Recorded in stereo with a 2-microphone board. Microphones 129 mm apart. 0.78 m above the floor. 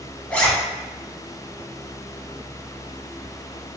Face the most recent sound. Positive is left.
turn(degrees=10)  # may be behind; listen again after turning